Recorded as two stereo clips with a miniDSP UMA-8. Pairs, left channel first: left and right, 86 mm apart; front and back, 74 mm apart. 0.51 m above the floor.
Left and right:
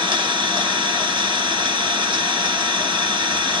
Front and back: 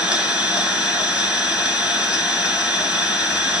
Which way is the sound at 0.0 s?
105° right.